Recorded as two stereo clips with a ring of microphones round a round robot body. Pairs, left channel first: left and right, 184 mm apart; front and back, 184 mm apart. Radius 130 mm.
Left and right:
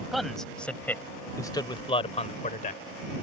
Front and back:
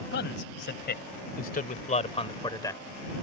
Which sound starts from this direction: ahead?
A man speaking, at 0.1 s.